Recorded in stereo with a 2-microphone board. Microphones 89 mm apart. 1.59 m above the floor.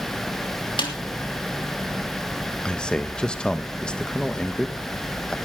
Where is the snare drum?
65° left (ahead or behind), 3 m.